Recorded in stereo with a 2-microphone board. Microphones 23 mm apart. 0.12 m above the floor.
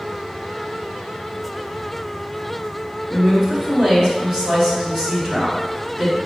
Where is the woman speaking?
30° right (ahead or behind), 1.4 m.